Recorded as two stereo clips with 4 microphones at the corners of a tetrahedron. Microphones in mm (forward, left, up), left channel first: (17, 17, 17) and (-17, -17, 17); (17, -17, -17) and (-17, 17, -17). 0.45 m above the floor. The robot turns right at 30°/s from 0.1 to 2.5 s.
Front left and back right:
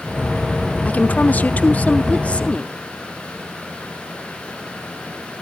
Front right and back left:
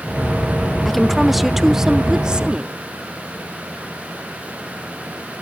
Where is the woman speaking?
35° left, 0.8 m; by 2.7 s 85° left, 0.8 m.